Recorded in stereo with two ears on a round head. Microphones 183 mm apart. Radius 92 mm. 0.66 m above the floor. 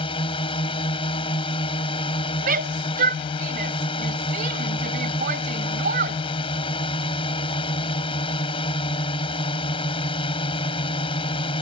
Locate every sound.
0.0 s a drone: 25° left (ahead or behind)
2.4 s a shout: 45° right (ahead or behind)